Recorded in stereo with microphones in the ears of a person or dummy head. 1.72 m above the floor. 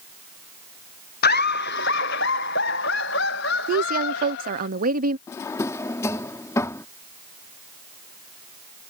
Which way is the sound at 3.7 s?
45° right (ahead or behind).